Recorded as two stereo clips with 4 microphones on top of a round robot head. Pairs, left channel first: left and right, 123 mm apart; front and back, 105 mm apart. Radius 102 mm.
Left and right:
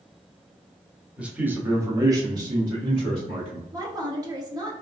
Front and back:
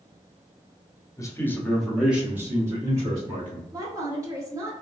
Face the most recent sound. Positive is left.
turn(degrees=-135)